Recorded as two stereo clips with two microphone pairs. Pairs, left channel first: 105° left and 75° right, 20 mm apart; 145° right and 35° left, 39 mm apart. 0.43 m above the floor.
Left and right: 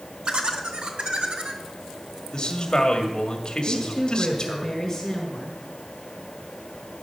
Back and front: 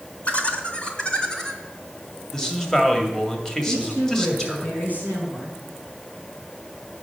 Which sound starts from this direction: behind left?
A man speaking, at 2.3 s.